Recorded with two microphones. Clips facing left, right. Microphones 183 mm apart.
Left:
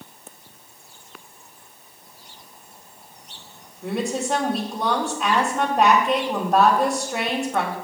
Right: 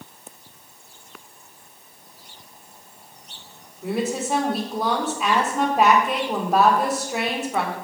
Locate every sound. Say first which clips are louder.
3.8 s a woman speaking: even; 5° right (ahead or behind), 2 m